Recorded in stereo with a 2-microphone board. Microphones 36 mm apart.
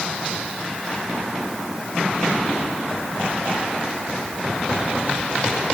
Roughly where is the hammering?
I don't hear hammering.